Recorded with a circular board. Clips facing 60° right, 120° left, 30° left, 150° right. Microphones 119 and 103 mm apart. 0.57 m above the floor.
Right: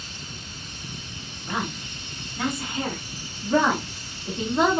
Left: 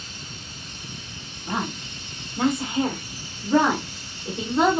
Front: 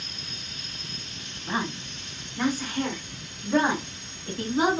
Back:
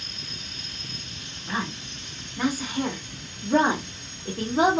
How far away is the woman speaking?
About 1.2 m.